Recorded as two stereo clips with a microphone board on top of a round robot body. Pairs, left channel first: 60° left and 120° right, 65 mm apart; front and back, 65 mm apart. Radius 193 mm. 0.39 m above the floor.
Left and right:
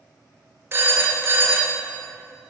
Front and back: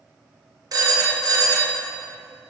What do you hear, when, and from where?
0.7 s a phone ringing: 175° right, 1.6 m